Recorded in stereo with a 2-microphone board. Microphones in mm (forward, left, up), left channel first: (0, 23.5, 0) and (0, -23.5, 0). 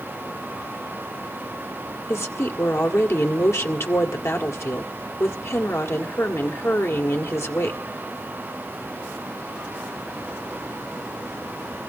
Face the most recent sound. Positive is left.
turn(degrees=80)